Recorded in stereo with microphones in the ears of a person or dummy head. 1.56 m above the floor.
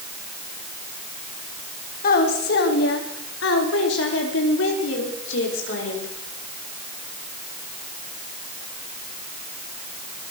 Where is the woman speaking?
50° left (ahead or behind), 3.5 m; by 6.1 s 75° left (ahead or behind), 7.5 m.